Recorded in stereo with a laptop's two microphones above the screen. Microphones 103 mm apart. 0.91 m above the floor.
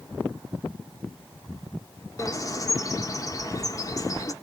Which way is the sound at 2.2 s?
35° left (ahead or behind).